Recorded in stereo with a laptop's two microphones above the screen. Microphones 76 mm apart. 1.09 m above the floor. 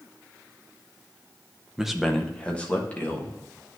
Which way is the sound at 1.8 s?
10° right (ahead or behind).